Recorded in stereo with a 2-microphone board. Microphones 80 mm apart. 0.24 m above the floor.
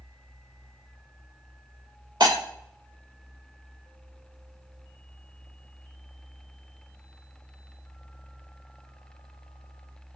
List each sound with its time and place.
2.2 s breaking glass: 60° right (ahead or behind), 3 m